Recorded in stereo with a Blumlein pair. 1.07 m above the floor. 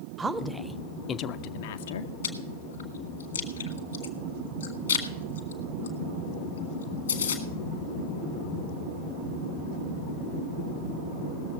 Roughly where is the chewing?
Left.